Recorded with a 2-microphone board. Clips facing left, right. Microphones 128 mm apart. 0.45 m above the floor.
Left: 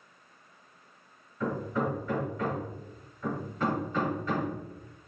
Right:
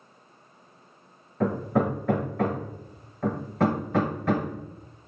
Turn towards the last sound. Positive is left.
turn(degrees=-70)  # may be behind; listen again after turning